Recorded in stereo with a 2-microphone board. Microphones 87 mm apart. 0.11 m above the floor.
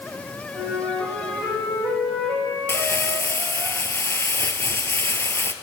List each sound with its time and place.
0.5 s a flute: centre (ahead or behind), 8.5 m
2.7 s crumpling: 30° left (ahead or behind), 1.0 m